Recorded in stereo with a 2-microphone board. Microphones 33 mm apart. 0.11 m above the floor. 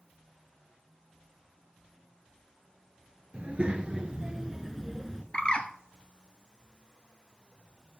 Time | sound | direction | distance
3.3 | a child speaking | 45° right (ahead or behind) | 1.2 m
5.3 | a bird | 35° left (ahead or behind) | 0.8 m